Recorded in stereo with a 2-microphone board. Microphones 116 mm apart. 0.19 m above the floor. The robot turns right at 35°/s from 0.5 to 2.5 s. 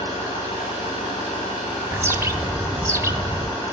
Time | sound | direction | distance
0.0 | an engine running | 85° left | 5 m
1.9 | a bird | 20° right (ahead or behind) | 0.6 m